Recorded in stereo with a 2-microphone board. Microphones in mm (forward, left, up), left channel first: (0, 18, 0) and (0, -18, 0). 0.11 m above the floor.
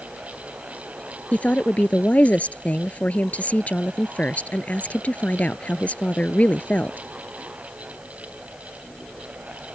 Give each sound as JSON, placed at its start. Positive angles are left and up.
{"t": 1.3, "sound": "a woman speaking", "side_deg": 40}